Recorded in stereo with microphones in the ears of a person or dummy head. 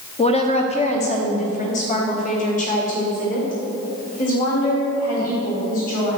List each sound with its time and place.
0.2 s a woman speaking: 20° left (ahead or behind), 0.9 m; by 6.2 s 40° left (ahead or behind), 4.5 m